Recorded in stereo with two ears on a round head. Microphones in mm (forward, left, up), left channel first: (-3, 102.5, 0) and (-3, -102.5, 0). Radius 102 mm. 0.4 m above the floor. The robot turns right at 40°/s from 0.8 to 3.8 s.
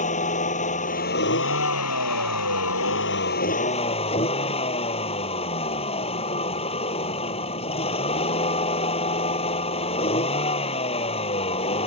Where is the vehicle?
35° left; by 11.9 s 155° left.